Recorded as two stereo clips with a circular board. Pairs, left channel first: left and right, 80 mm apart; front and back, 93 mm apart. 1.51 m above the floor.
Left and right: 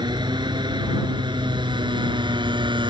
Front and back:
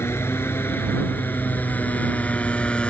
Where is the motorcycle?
65° right; by 2.9 s 80° right.